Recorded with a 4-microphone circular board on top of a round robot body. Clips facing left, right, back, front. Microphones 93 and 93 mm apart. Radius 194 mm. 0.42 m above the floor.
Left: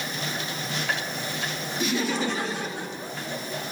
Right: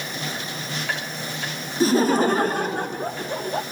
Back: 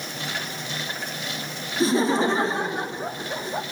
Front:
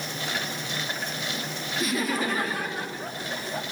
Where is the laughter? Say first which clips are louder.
Right 9 dB, back 8 dB; 130° right, 1.6 m; by 3.6 s 115° right, 2.5 m.